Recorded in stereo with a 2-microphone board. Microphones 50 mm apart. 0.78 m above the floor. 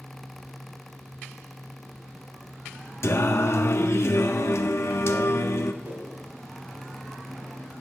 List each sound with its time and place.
3.0 s singing: 65° left (ahead or behind), 1.1 m
5.8 s a whoosh: 40° right (ahead or behind), 7 m